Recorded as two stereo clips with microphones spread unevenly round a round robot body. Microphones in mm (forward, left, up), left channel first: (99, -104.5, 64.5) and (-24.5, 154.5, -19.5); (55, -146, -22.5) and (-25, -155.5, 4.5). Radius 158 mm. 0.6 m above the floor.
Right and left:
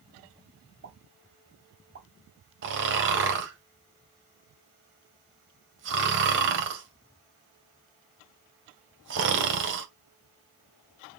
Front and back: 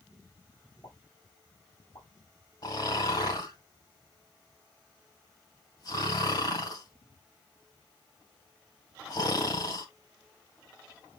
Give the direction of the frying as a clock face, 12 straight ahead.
I don't hear frying.